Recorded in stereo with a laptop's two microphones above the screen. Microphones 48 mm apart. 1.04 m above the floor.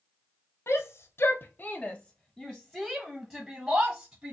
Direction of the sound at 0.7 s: 65° left (ahead or behind).